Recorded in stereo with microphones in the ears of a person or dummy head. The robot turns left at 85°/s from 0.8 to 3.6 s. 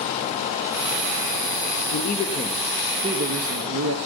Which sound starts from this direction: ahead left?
A man speaking, at 1.9 s.